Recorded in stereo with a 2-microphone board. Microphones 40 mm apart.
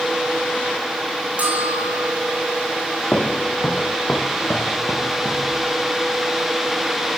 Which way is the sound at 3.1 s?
45° left (ahead or behind).